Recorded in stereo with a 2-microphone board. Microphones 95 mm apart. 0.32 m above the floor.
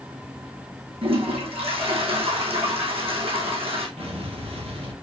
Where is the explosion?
85° right, 4.5 m.